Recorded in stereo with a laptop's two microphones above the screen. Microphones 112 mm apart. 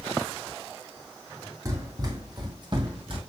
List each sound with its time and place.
1.6 s running footsteps: 30° right (ahead or behind), 2.5 m; by 3.2 s 50° right (ahead or behind), 2 m